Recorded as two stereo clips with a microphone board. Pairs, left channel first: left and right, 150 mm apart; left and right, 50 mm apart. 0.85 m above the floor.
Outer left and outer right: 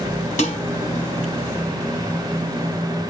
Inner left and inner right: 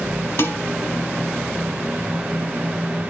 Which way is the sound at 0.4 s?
50° left (ahead or behind).